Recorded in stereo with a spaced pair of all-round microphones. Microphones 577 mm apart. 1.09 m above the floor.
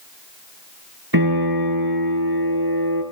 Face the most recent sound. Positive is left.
turn(degrees=-35)  # may be behind; listen again after turning